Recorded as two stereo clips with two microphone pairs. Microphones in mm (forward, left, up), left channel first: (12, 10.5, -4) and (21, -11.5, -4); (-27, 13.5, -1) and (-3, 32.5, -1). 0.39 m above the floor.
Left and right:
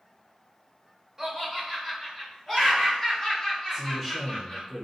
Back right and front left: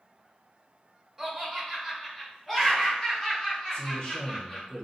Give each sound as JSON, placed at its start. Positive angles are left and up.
{"t": 1.2, "sound": "laughter", "azimuth_deg": -50, "distance_m": 1.3}
{"t": 3.7, "sound": "a man speaking", "azimuth_deg": -150, "distance_m": 0.8}